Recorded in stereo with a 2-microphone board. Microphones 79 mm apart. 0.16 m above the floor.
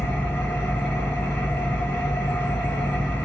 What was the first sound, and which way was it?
An engine running, 20° left (ahead or behind).